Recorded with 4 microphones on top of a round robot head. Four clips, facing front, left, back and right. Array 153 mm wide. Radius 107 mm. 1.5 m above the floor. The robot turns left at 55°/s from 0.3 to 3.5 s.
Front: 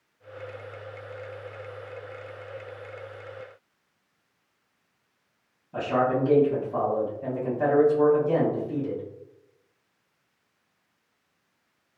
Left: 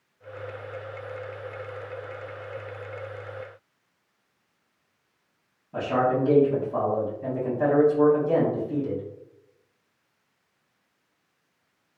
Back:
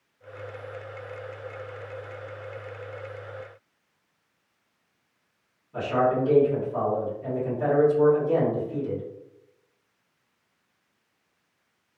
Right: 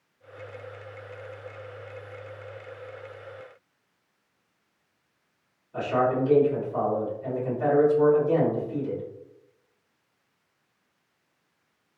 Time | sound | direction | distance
5.7 | a man speaking | 60° left | 1.5 m